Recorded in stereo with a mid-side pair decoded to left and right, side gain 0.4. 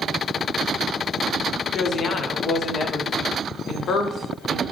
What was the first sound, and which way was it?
A woman speaking, 60° left.